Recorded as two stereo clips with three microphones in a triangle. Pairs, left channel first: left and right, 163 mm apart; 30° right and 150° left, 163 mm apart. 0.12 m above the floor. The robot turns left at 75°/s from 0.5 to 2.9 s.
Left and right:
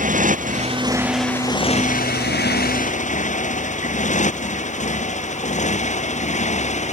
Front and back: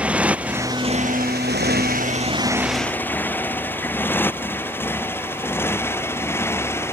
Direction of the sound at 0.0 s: 125° right.